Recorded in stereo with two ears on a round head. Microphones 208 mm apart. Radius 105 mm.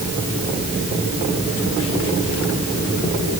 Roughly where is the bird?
No bird in this recording.